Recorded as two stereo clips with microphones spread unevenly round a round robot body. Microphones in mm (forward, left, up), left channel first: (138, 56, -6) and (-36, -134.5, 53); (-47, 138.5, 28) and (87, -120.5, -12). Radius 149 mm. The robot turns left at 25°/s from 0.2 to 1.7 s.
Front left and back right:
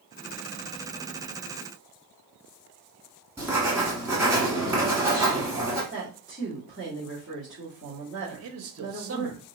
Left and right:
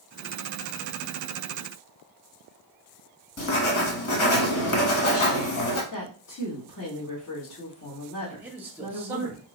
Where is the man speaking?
130° right, 0.9 m.